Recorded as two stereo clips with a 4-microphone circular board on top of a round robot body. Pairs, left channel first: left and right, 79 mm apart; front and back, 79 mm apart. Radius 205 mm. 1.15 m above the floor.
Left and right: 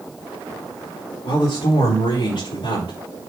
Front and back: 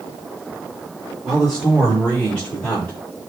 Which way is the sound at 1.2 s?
90° left.